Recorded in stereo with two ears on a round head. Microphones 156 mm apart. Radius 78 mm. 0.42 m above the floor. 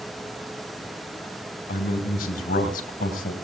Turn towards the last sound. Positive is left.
turn(degrees=50)  # may be behind; listen again after turning